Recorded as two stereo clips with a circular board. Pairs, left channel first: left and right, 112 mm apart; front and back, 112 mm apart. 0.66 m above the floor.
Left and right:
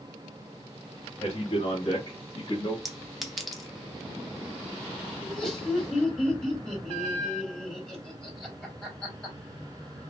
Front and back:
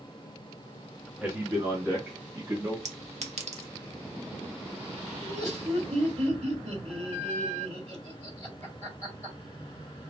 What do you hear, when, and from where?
1.2 s a man speaking: 110° left, 1.8 m; by 2.8 s 120° left, 1.2 m
2.9 s a clink: straight behind, 0.7 m
5.2 s laughter: 175° left, 2.5 m